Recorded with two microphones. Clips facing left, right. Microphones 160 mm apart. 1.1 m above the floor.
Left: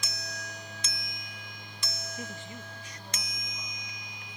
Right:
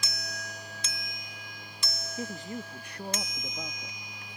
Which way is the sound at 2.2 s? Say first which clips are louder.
Right 9 dB; 30° right (ahead or behind).